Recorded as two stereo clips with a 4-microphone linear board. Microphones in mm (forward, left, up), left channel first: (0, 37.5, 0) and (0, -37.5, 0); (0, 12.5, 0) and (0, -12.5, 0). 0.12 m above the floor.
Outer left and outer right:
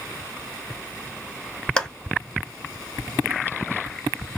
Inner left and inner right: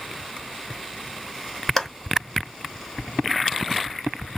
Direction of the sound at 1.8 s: 10° left (ahead or behind).